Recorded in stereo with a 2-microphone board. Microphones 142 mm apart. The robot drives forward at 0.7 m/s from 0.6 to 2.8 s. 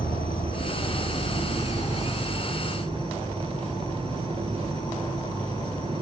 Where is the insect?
80° left, 1.2 m; by 6.0 s 35° left (ahead or behind), 2.0 m.